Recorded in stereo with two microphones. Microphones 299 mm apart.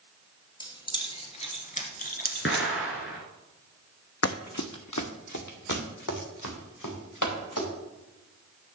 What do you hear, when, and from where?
0.6 s keys jangling: 15° left (ahead or behind), 2 m; by 2.7 s 35° left (ahead or behind), 1.3 m
2.5 s an explosion: 45° left (ahead or behind), 1.9 m
4.2 s running footsteps: 55° left (ahead or behind), 0.6 m; by 7.7 s 80° left, 3.5 m